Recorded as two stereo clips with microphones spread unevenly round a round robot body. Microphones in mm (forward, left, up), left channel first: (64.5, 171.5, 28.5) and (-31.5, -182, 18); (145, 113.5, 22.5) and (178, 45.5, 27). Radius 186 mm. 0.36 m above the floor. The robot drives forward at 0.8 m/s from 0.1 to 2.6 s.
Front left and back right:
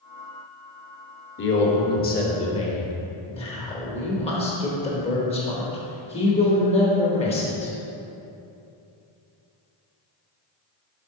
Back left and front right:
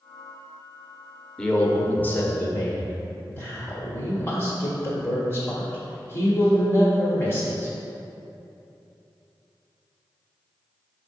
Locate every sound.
1.4 s a man speaking: 45° left, 1.2 m; by 7.7 s 140° left, 1.2 m